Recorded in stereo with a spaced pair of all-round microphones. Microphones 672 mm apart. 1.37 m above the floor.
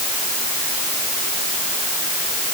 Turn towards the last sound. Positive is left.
No sound to turn to.